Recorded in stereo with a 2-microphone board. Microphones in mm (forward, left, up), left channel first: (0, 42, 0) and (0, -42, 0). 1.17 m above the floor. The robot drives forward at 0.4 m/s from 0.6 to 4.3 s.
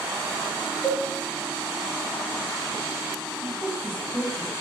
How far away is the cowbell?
About 2.5 m.